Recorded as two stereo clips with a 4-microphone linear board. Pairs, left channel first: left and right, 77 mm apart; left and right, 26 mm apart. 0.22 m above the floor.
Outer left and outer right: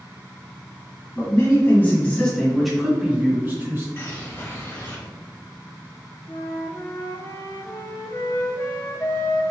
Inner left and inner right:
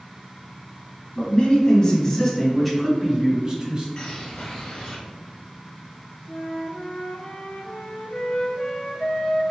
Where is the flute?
40° left (ahead or behind), 0.7 m.